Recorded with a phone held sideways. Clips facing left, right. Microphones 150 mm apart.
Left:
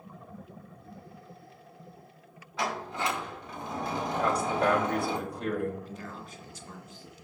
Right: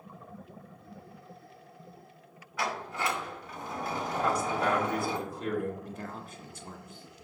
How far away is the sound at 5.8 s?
About 1.5 m.